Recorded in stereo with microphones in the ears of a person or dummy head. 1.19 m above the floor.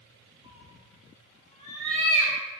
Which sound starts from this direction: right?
A cat meowing, at 0.4 s.